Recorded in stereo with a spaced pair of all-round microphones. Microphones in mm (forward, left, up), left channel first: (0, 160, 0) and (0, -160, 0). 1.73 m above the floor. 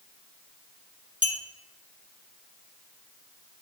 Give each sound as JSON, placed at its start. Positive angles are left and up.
{"t": 1.2, "sound": "a clink", "side_deg": -25, "distance_m": 1.1}